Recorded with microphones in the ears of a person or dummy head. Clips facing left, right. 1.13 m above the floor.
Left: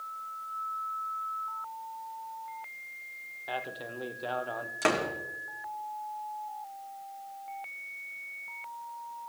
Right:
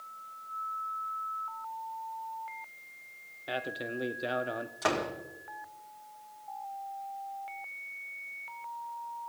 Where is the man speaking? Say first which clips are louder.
Right 2 dB; 25° right (ahead or behind), 0.7 m.